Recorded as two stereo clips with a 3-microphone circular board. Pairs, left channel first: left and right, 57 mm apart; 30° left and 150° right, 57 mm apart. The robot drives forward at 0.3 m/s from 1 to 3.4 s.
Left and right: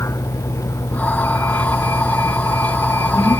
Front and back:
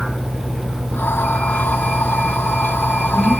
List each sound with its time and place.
0.0 s a vehicle: 120° left; by 3.4 s 125° left